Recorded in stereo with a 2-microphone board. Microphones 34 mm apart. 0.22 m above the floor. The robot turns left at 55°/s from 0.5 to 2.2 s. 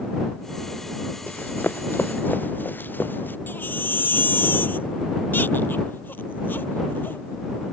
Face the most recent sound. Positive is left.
turn(degrees=80)